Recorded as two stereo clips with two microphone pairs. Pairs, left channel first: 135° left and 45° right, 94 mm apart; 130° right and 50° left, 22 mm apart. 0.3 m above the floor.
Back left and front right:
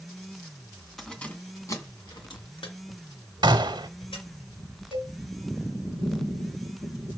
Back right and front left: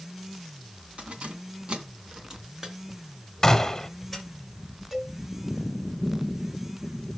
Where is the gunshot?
60° right, 1.3 m.